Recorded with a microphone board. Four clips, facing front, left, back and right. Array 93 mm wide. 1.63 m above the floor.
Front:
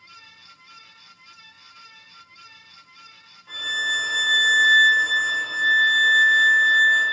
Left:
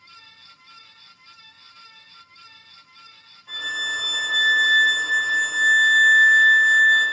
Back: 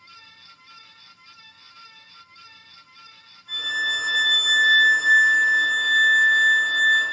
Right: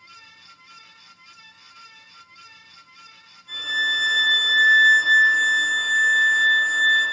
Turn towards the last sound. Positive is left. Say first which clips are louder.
# right 3 dB, even
turn(degrees=40)